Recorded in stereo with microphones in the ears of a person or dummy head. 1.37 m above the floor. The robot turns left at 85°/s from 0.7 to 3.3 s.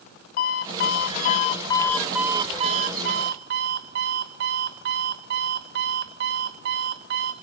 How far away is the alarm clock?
About 0.6 m.